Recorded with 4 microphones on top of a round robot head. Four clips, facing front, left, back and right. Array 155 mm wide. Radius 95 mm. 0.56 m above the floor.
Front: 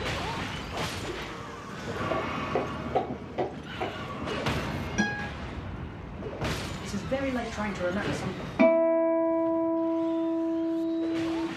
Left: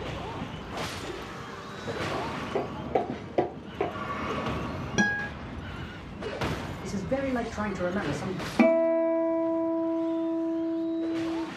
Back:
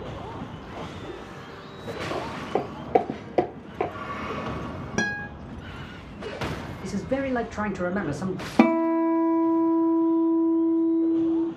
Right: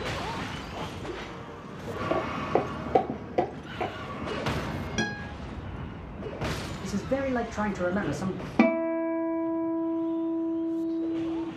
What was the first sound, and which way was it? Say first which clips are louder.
Footsteps: right 7 dB, back 1 dB; 95° right.